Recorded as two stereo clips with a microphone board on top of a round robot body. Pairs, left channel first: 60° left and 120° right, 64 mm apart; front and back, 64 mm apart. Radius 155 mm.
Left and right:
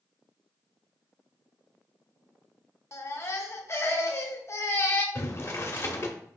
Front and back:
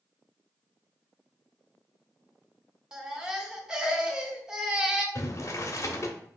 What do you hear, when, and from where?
2.9 s a baby crying: 105° left, 0.9 m
5.2 s boiling: 25° left, 1.0 m